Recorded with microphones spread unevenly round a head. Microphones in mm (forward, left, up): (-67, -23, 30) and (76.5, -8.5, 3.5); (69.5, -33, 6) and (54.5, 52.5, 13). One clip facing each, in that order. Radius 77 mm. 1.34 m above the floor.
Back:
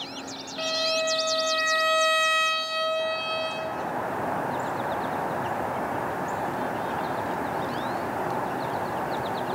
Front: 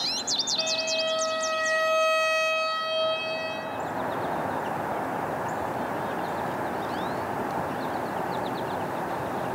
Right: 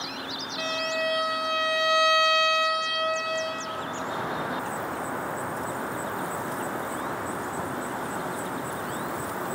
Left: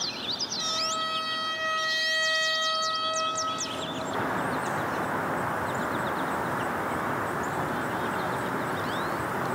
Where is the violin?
95° right, 2.5 m.